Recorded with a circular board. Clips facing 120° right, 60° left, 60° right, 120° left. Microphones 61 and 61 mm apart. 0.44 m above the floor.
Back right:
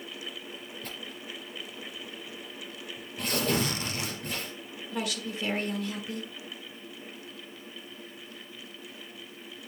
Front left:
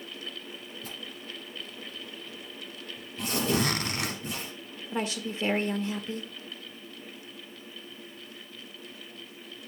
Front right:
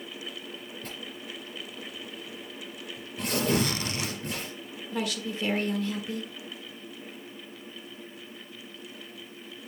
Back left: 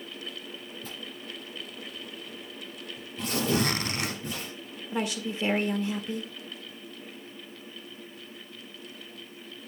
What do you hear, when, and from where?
0.8 s tearing paper: 75° right, 5 m
3.5 s a zipper: 75° left, 1.0 m
4.9 s a woman speaking: 75° left, 1.2 m